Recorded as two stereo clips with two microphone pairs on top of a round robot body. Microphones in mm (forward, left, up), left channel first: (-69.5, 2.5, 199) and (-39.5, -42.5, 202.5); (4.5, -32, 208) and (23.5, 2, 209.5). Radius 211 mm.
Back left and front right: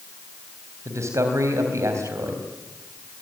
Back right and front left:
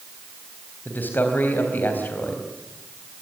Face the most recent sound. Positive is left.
turn(degrees=-85)